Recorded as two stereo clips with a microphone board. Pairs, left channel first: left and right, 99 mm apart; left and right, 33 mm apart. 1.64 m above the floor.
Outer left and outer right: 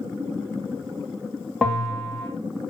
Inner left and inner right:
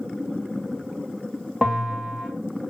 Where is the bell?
5° left (ahead or behind), 0.7 m.